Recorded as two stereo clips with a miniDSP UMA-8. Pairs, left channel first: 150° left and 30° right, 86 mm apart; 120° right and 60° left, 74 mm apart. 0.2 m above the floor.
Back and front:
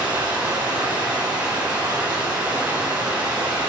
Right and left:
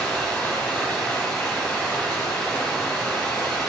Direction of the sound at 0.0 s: 60° right.